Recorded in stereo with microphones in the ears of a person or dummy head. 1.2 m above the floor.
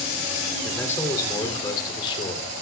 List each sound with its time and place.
0.6 s a man speaking: 10° left (ahead or behind), 3 m; by 2.6 s 30° left (ahead or behind), 3 m